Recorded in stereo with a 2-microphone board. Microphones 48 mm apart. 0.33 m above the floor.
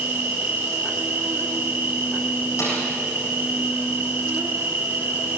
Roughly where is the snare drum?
Left.